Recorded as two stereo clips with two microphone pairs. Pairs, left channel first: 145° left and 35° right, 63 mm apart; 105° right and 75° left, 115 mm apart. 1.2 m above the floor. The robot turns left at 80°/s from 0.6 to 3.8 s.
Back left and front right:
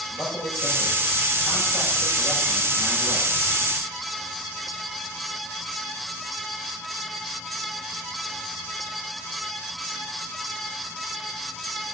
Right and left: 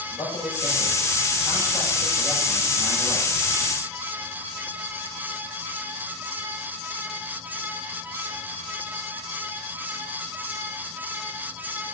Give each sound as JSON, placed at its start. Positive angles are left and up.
{"t": 0.1, "sound": "a man speaking", "azimuth_deg": -160, "distance_m": 6.0}